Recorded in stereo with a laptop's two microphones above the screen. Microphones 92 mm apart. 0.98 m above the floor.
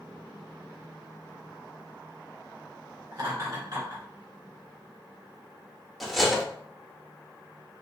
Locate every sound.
3.1 s laughter: 45° right (ahead or behind), 1.8 m
6.0 s cutlery clinking: centre (ahead or behind), 0.7 m